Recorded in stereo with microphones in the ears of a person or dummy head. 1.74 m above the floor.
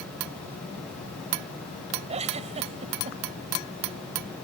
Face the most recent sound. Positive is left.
turn(degrees=-35)  # may be behind; listen again after turning